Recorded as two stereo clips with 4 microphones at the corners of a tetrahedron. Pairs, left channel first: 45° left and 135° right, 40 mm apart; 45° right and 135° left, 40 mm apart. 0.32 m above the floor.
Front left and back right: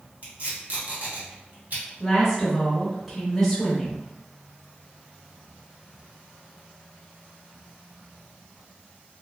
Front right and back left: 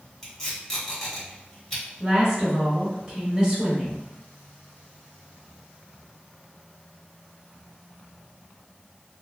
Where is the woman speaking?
140° left, 0.9 m.